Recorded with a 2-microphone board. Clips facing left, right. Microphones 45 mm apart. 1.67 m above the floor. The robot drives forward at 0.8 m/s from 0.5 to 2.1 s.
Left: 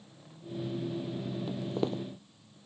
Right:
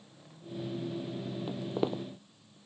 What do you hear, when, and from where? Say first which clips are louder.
1.5 s footsteps: right 1 dB; 15° right (ahead or behind)